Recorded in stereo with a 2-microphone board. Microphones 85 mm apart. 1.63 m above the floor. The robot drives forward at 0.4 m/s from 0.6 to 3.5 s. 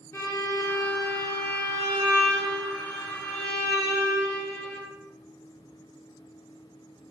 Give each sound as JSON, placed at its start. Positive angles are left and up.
{"t": 0.1, "sound": "a violin", "side_deg": 35, "distance_m": 0.8}